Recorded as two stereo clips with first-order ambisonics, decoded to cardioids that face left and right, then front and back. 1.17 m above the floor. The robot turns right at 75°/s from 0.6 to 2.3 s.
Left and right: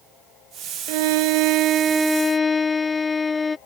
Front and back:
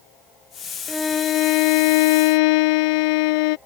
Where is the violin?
95° right; by 3.6 s 15° left.